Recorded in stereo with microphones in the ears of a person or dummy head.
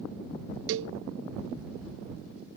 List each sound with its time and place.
0.7 s a cowbell: 65° right (ahead or behind)